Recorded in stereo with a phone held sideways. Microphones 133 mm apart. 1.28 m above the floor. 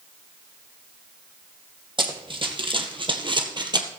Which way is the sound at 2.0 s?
35° right (ahead or behind).